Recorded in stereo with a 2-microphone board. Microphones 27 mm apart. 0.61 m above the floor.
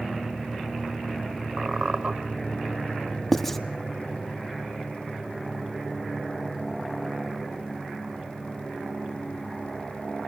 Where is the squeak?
40° right (ahead or behind), 1.2 m.